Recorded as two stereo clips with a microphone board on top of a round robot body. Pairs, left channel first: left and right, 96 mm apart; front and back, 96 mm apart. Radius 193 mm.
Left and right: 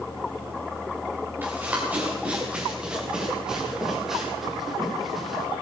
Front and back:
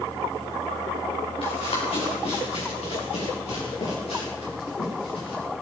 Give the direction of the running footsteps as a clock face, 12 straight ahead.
1 o'clock.